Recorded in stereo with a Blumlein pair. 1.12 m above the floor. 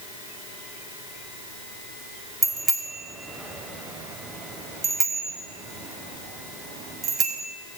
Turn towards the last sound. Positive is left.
turn(degrees=-25)